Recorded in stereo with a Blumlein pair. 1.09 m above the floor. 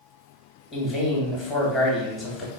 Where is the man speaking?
15° left, 1.1 m.